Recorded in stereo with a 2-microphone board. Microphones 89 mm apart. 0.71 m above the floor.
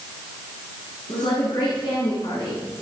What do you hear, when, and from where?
1.1 s a woman speaking: 70° left (ahead or behind), 9.5 m; by 2.6 s 75° left (ahead or behind), 10 m